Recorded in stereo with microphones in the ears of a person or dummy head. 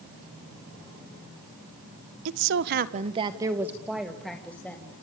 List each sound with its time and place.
2.2 s a woman speaking: 75° right (ahead or behind), 1.4 m; by 4.9 s 10° left (ahead or behind), 3.5 m